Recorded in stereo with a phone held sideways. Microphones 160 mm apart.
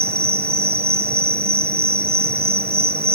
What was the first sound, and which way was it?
An insect, 80° right.